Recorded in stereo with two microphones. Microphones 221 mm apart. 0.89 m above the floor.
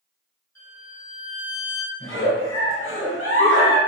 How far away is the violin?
About 1.9 m.